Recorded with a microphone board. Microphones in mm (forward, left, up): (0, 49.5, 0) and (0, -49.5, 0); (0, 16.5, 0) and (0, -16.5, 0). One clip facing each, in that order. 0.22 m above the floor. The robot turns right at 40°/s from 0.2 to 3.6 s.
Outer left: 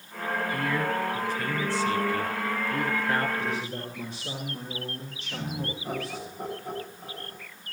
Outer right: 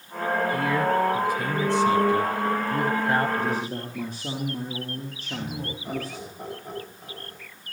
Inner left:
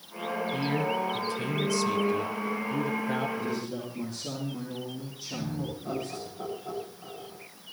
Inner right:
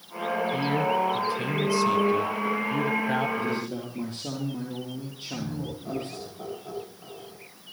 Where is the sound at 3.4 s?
55° right (ahead or behind), 4.5 m; by 6.3 s 50° right (ahead or behind), 4.5 m.